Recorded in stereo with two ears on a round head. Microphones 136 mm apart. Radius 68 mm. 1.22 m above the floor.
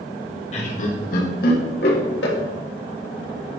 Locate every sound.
0.5 s laughter: 45° left (ahead or behind), 1.5 m; by 2.4 s 80° left, 2 m